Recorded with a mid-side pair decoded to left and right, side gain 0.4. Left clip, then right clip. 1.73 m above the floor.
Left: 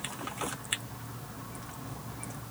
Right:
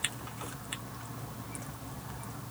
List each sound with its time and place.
Only background noise.